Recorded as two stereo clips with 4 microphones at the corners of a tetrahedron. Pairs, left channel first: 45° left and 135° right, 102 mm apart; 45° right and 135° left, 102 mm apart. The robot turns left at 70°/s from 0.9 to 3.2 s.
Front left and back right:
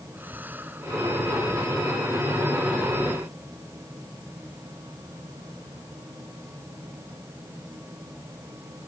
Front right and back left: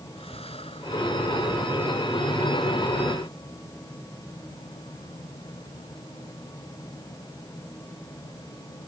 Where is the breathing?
60° right; by 1.3 s 90° right.